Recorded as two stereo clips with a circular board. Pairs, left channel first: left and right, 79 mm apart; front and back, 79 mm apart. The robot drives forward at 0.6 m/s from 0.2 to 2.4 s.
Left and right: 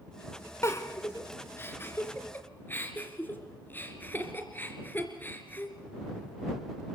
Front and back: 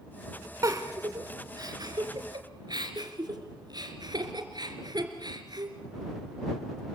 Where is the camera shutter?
I don't hear a camera shutter.